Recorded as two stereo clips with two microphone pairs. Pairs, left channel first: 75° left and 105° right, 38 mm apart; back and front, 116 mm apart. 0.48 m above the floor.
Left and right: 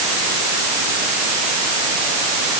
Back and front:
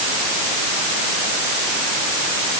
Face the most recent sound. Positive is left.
No sound to turn to.